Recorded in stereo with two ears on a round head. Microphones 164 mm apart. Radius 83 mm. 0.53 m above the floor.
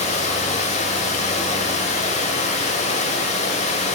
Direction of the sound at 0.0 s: 35° left (ahead or behind).